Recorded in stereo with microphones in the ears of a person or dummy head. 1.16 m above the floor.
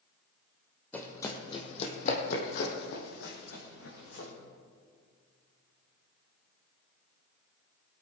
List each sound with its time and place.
0.9 s running footsteps: 10° left (ahead or behind), 2.5 m; by 4.3 s 75° left (ahead or behind), 4.5 m